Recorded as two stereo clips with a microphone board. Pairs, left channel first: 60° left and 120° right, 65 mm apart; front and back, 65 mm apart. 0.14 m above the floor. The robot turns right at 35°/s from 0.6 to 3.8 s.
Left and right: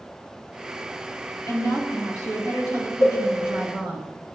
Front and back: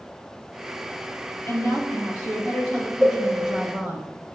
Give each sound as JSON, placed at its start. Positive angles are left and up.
{"t": 1.5, "sound": "a woman speaking", "azimuth_deg": 35, "distance_m": 3.5}
{"t": 3.0, "sound": "a cowbell", "azimuth_deg": 90, "distance_m": 4.0}